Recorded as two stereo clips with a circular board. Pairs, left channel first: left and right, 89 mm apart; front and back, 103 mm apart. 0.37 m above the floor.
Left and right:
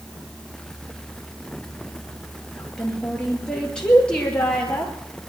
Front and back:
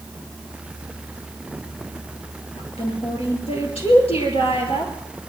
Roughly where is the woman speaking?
Ahead.